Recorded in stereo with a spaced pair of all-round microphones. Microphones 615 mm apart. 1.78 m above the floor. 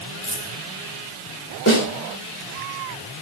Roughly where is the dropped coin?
Left.